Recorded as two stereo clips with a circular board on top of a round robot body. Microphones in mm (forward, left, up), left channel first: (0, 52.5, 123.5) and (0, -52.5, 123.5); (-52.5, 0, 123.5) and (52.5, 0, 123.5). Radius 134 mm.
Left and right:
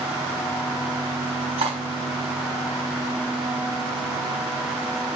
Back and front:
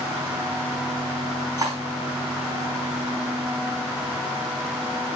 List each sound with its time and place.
1.6 s cutlery clinking: 60° right, 4.5 m